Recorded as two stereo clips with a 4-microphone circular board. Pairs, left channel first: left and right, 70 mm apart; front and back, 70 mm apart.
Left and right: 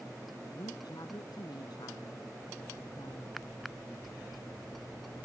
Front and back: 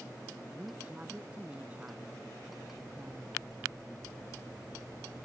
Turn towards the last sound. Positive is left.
turn(degrees=110)